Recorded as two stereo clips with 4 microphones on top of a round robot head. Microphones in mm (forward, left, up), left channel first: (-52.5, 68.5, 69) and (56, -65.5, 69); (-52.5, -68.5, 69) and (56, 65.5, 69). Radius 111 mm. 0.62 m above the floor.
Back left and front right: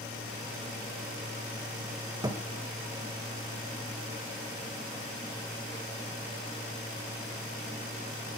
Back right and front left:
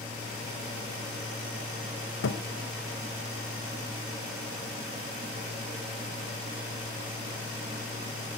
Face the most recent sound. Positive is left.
turn(degrees=-120)